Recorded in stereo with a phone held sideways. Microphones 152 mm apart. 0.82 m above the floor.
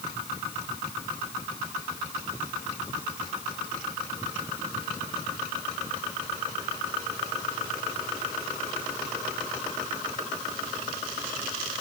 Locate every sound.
Only background noise.